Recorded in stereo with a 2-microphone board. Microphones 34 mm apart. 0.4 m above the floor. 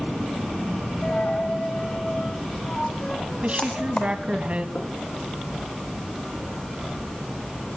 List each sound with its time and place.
1.0 s a dropped coin: 30° left (ahead or behind), 3 m
3.4 s a woman speaking: 40° right (ahead or behind), 2.5 m
4.8 s knocking: 80° left, 4.5 m